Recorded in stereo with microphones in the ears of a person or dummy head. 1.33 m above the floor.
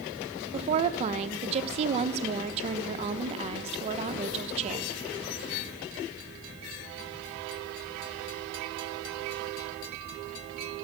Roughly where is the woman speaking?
Right.